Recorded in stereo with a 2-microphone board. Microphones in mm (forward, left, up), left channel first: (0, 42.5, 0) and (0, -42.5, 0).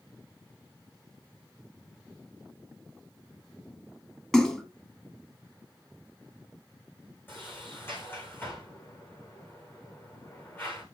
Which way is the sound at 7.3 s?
25° left (ahead or behind).